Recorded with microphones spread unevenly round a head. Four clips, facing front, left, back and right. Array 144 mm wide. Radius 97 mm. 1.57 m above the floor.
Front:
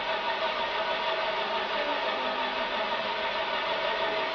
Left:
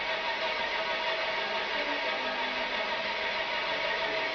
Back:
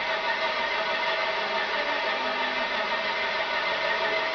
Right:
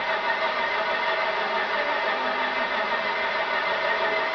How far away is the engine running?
About 1.4 m.